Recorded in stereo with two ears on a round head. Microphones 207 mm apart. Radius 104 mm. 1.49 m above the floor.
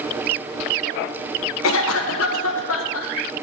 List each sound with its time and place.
1.6 s a cough: 60° left (ahead or behind), 1.4 m